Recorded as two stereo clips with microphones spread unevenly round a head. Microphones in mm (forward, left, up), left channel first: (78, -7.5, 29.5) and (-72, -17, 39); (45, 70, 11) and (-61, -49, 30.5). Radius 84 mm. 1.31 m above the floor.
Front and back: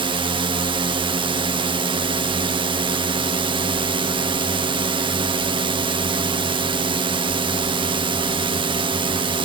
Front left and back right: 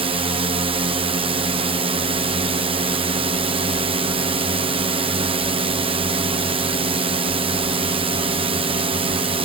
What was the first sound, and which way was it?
A drone, 160° right.